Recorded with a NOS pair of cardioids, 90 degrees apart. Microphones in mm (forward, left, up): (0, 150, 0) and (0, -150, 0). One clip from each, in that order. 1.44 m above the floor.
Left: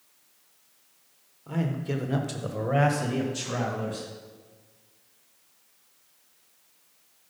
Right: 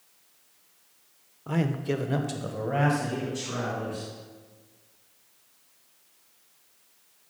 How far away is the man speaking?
About 1.1 m.